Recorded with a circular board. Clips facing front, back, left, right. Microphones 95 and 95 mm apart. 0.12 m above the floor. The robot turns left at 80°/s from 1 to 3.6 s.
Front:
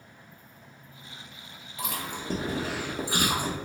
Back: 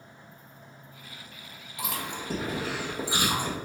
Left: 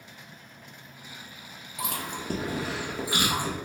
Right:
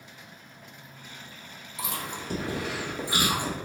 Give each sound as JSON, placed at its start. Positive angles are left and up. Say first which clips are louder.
{"t": 1.8, "sound": "chewing", "louder": "even, left 1 dB", "azimuth_deg": 105, "distance_m": 1.6}